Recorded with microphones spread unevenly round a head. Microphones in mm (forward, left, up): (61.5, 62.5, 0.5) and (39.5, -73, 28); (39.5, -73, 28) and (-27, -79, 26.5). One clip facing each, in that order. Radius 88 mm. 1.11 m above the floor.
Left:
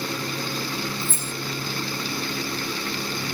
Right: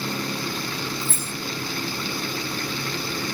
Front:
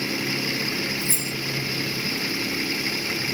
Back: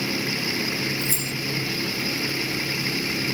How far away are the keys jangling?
About 1.7 m.